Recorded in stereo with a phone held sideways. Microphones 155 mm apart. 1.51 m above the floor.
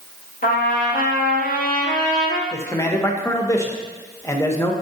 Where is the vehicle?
I don't hear a vehicle.